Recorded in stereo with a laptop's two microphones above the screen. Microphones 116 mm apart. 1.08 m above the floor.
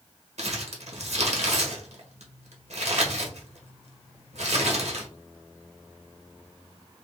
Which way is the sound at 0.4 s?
75° right (ahead or behind).